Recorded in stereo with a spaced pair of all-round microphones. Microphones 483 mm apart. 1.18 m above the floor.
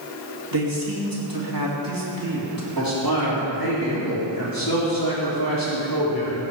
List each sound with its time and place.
0.5 s a man speaking: 45° right (ahead or behind), 3.5 m
2.8 s a man speaking: 45° left (ahead or behind), 3.5 m